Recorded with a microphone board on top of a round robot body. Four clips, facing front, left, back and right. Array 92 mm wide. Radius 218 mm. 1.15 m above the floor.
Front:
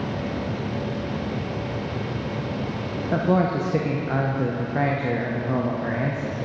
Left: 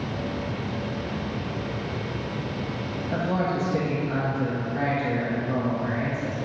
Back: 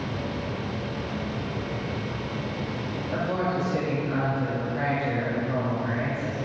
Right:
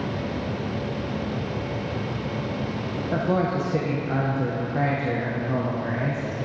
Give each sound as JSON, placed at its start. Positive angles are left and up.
{"t": 3.1, "sound": "a man speaking", "azimuth_deg": -25, "distance_m": 1.0}